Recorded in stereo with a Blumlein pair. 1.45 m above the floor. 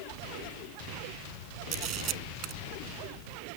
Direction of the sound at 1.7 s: 35° right.